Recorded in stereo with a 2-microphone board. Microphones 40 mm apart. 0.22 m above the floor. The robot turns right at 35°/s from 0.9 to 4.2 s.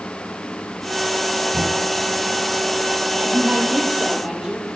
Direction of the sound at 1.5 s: 30° right (ahead or behind).